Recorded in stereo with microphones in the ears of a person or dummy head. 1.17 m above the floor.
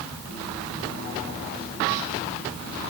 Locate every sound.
Only background noise.